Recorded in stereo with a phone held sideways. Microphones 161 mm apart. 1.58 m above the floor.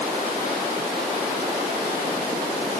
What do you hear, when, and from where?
Only background noise.